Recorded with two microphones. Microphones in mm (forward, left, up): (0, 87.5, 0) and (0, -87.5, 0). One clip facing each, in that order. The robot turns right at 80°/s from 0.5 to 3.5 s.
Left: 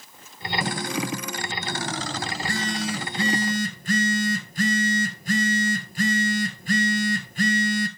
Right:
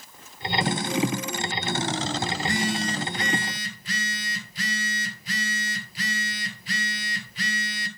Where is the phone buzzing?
35° right, 1.3 m; by 7.9 s 60° left, 1.3 m.